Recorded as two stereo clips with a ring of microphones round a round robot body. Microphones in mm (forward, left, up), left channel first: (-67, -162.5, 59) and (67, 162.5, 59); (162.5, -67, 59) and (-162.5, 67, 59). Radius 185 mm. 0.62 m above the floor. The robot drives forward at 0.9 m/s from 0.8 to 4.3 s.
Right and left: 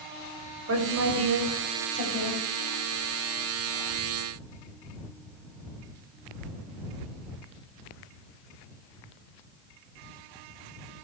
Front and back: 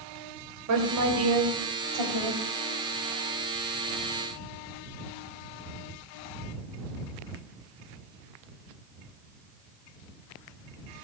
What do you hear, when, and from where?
0.7 s a woman speaking: 115° left, 3.5 m; by 2.4 s 135° left, 4 m